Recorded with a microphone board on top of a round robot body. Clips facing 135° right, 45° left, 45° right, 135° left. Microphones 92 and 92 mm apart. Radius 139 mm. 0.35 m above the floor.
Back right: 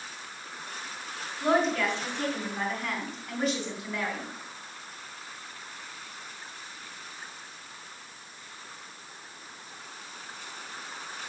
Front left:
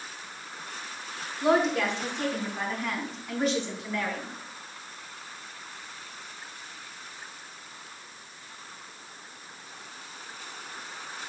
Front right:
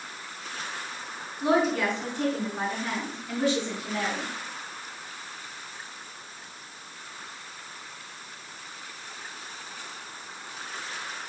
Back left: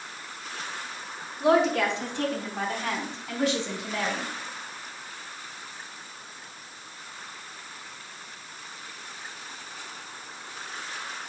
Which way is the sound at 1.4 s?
120° left.